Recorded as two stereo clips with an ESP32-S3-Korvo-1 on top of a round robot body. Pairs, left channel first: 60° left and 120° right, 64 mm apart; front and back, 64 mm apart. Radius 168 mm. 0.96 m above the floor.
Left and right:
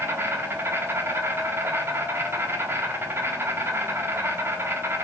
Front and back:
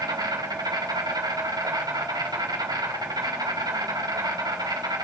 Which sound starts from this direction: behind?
An insect, at 0.0 s.